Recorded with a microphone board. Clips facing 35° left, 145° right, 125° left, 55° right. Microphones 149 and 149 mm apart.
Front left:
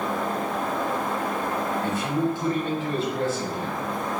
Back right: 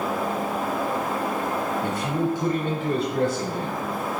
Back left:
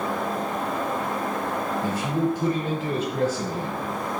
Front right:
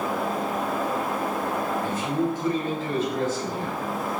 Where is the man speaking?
170° left, 4 m.